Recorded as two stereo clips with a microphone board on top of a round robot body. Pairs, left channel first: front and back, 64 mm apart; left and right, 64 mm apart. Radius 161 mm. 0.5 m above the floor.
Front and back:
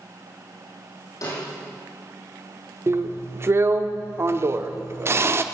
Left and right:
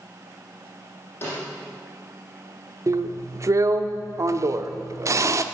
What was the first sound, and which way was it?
A snare drum, 30° left.